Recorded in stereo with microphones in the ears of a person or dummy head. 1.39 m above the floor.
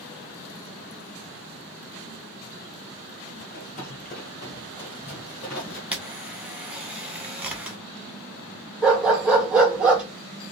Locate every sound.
3.4 s running footsteps: 45° left (ahead or behind), 1.9 m; by 5.8 s 10° left (ahead or behind), 1.9 m
5.9 s a camera shutter: 10° right (ahead or behind), 0.8 m
8.8 s a dog barking: 15° right (ahead or behind), 2.0 m